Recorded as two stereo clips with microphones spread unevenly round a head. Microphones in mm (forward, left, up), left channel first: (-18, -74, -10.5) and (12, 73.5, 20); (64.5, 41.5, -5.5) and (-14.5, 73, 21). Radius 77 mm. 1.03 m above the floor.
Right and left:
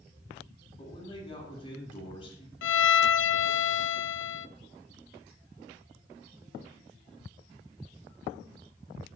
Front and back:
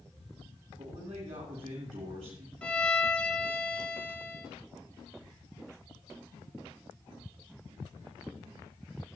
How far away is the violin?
About 0.6 m.